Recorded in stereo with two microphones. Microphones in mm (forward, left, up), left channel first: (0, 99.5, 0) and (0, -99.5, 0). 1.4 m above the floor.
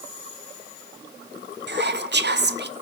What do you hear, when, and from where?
1.7 s whispering: 60° right (ahead or behind), 0.5 m